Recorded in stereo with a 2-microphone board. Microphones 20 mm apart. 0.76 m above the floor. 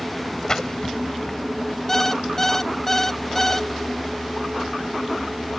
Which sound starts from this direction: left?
A splash, at 0.5 s.